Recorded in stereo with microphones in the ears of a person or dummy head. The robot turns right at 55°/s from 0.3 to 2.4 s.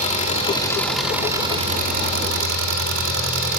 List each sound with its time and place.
0.0 s an engine running: 140° left, 4.5 m; by 3.6 s 105° right, 4.5 m